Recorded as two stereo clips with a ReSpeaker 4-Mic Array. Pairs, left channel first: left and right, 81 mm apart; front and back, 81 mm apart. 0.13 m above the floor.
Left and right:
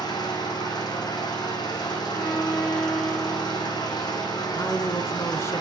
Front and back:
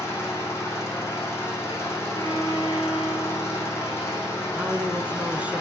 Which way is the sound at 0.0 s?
60° left.